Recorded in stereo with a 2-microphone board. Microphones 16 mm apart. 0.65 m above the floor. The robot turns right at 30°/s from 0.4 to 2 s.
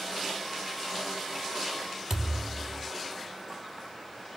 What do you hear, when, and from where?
2.1 s a thud: 20° right (ahead or behind), 2.5 m